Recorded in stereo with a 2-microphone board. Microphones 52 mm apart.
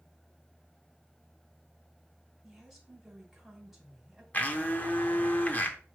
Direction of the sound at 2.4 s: Centre (ahead or behind).